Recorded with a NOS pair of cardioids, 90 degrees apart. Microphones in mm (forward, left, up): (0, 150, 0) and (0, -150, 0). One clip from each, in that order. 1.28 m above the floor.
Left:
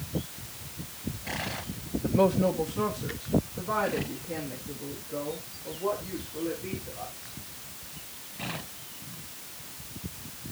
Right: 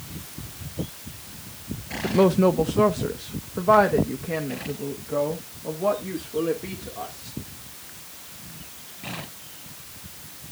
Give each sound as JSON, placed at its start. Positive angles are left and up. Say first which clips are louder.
{"t": 2.0, "sound": "a woman speaking", "louder": "right 5 dB", "azimuth_deg": -20, "distance_m": 0.7}